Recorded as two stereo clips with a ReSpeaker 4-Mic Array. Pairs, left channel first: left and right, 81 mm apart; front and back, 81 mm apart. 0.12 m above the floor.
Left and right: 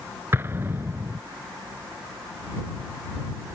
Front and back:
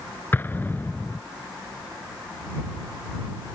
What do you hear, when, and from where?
0.3 s an explosion: 45° right